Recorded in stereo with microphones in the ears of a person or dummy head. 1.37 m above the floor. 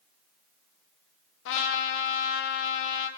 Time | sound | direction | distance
1.4 | a trumpet | 70° left (ahead or behind) | 1.0 m